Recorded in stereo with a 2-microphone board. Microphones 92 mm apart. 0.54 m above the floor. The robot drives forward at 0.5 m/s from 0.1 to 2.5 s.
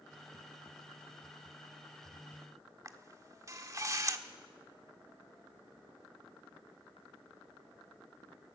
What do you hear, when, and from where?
2.9 s a camera shutter: 35° right (ahead or behind), 1.3 m